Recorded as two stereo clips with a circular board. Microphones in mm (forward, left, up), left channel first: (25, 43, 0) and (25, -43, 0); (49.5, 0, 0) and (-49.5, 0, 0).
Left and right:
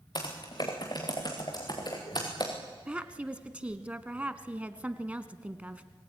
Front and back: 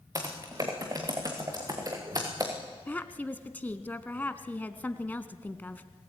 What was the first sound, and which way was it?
Typing on a keyboard, 125° left.